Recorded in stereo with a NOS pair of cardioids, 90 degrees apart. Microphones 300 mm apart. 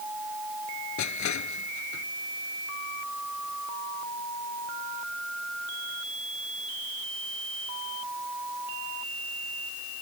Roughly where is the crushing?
Left.